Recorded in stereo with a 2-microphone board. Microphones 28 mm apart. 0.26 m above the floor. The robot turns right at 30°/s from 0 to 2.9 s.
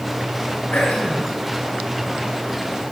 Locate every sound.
0.7 s throat clearing: 70° left (ahead or behind), 2.5 m